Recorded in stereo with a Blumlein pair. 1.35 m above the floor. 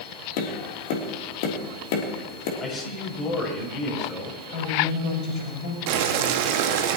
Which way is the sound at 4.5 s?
40° left.